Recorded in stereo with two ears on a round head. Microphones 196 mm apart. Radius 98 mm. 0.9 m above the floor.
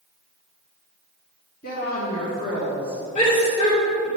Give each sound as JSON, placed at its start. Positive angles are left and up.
{"t": 1.6, "sound": "a woman speaking", "side_deg": 40, "distance_m": 1.6}
{"t": 3.1, "sound": "a shout", "side_deg": 30, "distance_m": 2.5}